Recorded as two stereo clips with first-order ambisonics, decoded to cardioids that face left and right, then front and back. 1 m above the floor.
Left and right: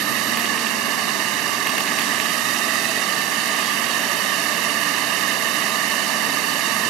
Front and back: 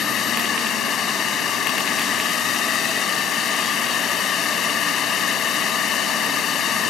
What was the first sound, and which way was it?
A drone, 60° right.